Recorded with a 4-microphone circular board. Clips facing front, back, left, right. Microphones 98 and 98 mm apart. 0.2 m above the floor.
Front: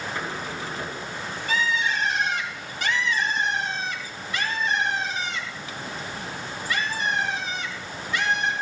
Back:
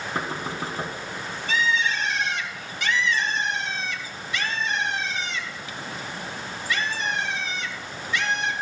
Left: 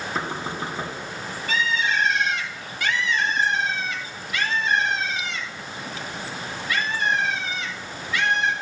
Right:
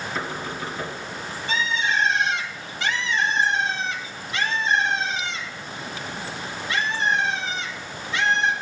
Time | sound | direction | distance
0.1 | knocking | 145° left | 1.4 m
1.5 | a bird | 35° right | 1.3 m